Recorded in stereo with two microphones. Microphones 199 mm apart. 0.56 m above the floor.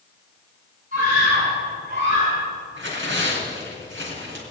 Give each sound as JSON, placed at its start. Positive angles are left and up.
{"t": 0.9, "sound": "a scream", "side_deg": -45, "distance_m": 5.5}
{"t": 2.8, "sound": "tearing paper", "side_deg": -85, "distance_m": 4.0}